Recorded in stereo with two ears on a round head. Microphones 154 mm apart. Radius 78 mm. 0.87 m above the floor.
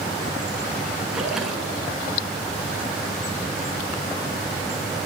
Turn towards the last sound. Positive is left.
turn(degrees=-5)  # may be behind; listen again after turning